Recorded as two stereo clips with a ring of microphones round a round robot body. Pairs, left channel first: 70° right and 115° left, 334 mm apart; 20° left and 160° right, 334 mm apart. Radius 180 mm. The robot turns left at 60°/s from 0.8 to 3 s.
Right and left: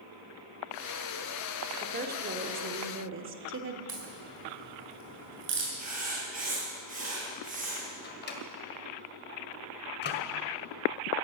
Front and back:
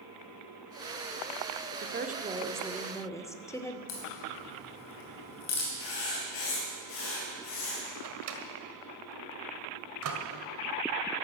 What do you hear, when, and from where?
1.8 s a woman speaking: 170° left, 1.2 m; by 3.8 s 100° left, 1.2 m
3.9 s a crack: 60° left, 3 m
5.8 s writing: 45° left, 4.5 m
8.0 s a microwave: 125° right, 1.8 m